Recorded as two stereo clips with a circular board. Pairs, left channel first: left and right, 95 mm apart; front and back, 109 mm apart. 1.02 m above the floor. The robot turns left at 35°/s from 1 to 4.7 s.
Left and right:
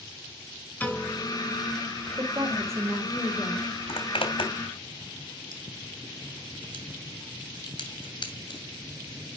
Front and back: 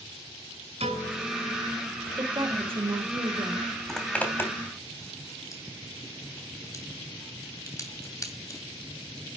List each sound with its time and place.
0.8 s a piano: 165° left, 7 m; by 1.7 s 140° left, 7 m
2.2 s a woman speaking: 130° right, 4 m; by 3.7 s straight behind, 4 m
3.9 s a zipper: 85° left, 2.5 m; by 8.6 s 60° left, 2.5 m